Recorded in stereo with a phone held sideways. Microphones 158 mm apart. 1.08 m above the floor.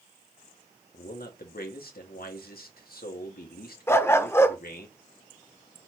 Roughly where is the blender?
I don't hear a blender.